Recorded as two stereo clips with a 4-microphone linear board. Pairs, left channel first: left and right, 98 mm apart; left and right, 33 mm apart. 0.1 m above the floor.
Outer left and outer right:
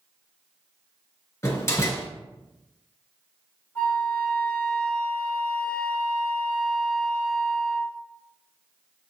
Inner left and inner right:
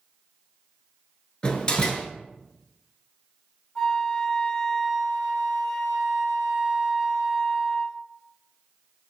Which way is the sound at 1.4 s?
30° left (ahead or behind).